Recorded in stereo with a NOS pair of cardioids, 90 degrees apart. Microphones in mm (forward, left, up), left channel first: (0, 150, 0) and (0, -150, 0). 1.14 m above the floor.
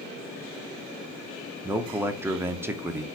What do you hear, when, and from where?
1.6 s a man speaking: 10° right, 0.7 m